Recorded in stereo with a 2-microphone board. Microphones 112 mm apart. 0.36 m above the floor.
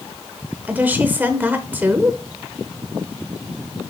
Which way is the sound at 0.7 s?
15° right (ahead or behind).